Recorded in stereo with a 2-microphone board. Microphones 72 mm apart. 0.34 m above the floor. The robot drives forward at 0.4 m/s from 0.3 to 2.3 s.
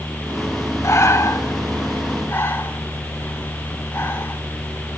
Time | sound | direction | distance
0.8 | breathing | 45° left (ahead or behind) | 1.2 m